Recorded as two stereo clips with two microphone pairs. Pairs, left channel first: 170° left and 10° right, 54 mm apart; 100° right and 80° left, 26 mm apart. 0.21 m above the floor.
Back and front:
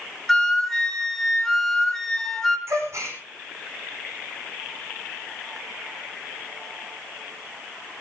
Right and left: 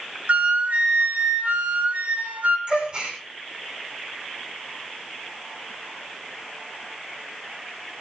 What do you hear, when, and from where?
0.3 s a flute: 90° left, 1.9 m
2.7 s a gasp: 25° left, 4 m